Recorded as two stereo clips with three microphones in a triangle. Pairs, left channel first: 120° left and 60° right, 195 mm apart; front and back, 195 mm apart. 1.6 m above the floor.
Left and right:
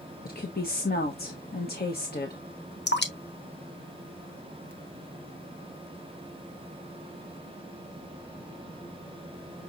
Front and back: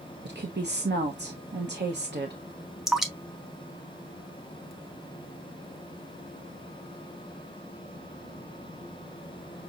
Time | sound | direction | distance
0.2 | a woman speaking | 155° left | 0.9 m
2.9 | dripping | 90° left | 0.9 m